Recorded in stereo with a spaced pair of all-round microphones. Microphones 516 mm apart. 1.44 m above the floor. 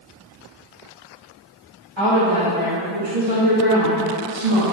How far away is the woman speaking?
About 3 m.